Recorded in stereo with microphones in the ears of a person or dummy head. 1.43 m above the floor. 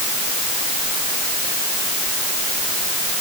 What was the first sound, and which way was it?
Only background noise.